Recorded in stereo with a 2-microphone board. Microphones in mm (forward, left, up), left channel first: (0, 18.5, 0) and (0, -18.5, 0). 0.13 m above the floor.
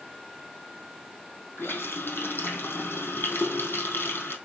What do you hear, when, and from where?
1.6 s a running tap: 75° left (ahead or behind), 3 m